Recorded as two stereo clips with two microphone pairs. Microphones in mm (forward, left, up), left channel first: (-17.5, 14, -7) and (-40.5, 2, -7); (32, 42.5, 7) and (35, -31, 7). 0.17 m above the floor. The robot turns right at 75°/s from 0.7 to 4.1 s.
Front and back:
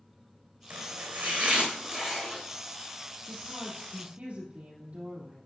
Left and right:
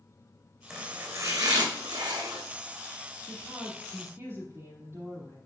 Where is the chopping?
175° right, 2.5 m; by 2.4 s 45° right, 2.5 m.